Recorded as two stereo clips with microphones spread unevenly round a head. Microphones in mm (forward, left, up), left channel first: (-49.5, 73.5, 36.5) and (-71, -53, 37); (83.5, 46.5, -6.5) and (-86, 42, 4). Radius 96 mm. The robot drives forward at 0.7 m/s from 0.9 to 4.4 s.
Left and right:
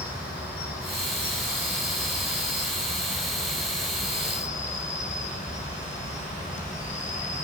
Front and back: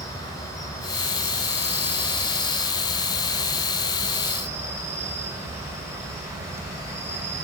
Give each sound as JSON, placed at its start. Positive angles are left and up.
{"t": 0.0, "sound": "an insect", "azimuth_deg": 75, "distance_m": 4.0}